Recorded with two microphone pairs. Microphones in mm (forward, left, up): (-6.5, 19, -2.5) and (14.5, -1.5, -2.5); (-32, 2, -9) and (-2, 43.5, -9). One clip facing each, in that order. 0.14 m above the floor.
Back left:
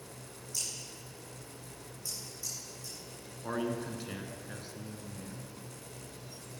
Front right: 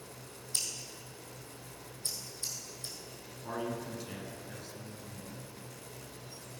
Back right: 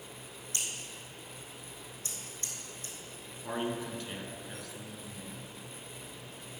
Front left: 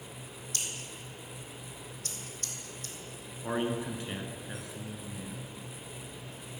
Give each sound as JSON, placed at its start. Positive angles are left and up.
{"t": 0.5, "sound": "scissors", "azimuth_deg": -60, "distance_m": 1.6}
{"t": 3.4, "sound": "a man speaking", "azimuth_deg": 100, "distance_m": 1.2}